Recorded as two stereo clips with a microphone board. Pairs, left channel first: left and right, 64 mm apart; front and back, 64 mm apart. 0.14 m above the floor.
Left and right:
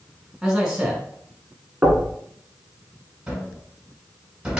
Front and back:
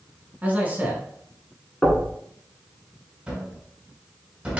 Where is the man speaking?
155° right, 1.1 m.